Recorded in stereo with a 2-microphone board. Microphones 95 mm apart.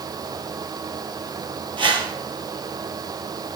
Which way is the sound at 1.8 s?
60° right (ahead or behind).